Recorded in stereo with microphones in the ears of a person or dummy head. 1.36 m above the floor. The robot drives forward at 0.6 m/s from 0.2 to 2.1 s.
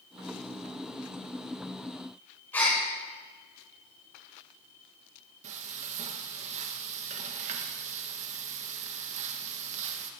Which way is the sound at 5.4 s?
30° right (ahead or behind).